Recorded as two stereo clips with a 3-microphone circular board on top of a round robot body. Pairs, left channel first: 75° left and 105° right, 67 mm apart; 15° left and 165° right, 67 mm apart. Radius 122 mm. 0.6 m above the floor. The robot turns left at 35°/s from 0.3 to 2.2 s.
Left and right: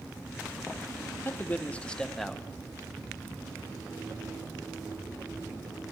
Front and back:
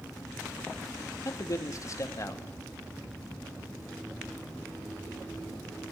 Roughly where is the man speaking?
Ahead left.